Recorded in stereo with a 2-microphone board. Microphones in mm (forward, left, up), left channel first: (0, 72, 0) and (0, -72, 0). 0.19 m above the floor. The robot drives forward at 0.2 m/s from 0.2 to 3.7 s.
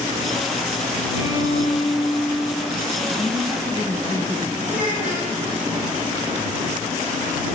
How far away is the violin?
About 3.5 m.